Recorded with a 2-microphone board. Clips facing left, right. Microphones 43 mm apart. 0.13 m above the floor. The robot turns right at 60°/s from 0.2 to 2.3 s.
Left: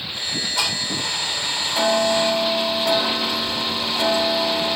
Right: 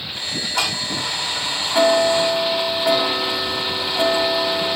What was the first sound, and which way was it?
Ticking, 145° right.